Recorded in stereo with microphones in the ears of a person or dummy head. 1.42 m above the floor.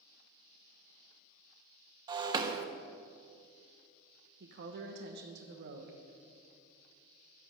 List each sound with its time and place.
2.1 s breaking glass: 25° right (ahead or behind), 1.1 m
4.4 s a woman speaking: 65° right (ahead or behind), 1.2 m